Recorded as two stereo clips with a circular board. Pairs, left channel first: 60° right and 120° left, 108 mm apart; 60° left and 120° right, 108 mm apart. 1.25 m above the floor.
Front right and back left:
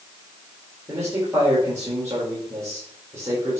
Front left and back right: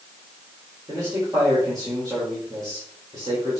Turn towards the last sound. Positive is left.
turn(degrees=-175)